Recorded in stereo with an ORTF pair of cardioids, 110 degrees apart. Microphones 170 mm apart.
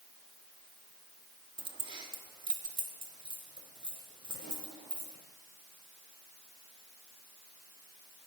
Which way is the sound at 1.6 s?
30° right.